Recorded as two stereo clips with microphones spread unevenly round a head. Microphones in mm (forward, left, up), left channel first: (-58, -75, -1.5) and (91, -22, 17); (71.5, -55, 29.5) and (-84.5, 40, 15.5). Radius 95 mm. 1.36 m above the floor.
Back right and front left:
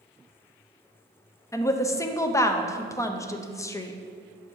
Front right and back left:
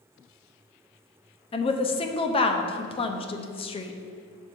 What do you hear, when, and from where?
1.5 s a woman speaking: 95° right, 0.5 m